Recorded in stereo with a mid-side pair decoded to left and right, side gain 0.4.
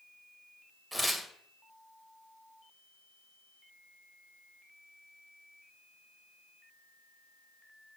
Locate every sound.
0.9 s tearing paper: 10° right, 1.9 m